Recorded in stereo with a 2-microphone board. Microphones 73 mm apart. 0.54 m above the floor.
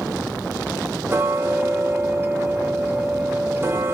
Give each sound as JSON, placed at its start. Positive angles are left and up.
{"t": 1.1, "sound": "ticking", "side_deg": -30, "distance_m": 0.8}